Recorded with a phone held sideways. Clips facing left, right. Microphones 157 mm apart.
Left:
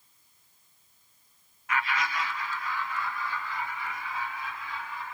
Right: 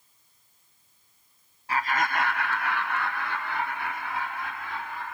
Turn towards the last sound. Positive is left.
turn(degrees=-60)  # may be behind; listen again after turning